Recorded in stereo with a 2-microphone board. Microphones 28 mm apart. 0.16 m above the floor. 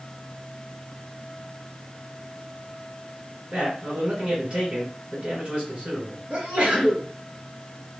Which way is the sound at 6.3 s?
35° right (ahead or behind).